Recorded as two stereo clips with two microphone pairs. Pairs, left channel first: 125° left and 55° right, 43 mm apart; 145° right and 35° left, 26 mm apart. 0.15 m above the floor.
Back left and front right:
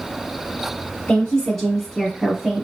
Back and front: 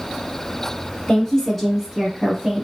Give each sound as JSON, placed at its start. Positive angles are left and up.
{"t": 1.1, "sound": "a woman speaking", "azimuth_deg": 165, "distance_m": 1.3}